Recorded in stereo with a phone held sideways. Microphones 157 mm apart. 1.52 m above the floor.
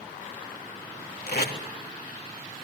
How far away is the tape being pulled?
About 3.5 m.